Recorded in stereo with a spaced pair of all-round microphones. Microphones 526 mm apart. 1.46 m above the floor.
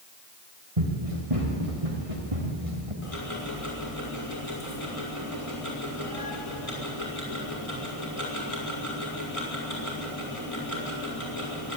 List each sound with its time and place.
0.8 s running footsteps: 75° right (ahead or behind), 6 m; by 2.9 s 70° right (ahead or behind), 7.5 m
3.0 s ticking: 80° left, 6 m